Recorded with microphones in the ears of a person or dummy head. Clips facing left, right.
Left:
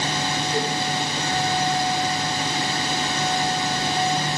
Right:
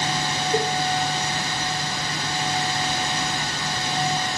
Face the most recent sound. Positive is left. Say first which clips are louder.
# right 3 dB
turn(degrees=-35)  # may be behind; listen again after turning